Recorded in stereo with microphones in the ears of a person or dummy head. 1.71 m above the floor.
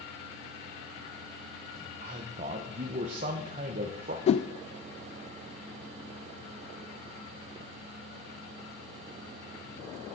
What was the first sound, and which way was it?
A man speaking, 40° right (ahead or behind).